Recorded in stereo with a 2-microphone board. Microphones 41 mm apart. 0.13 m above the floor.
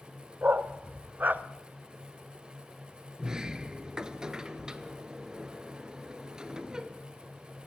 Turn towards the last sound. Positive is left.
turn(degrees=-20)  # may be behind; listen again after turning